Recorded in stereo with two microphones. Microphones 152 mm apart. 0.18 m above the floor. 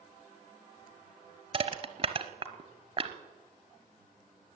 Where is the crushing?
40° right (ahead or behind), 1.0 m.